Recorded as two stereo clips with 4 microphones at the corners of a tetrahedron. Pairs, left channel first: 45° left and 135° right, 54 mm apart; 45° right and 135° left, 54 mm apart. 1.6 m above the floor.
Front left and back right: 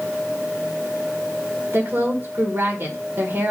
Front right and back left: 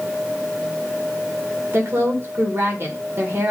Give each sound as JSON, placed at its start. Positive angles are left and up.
{"t": 1.7, "sound": "a woman speaking", "azimuth_deg": 175, "distance_m": 2.0}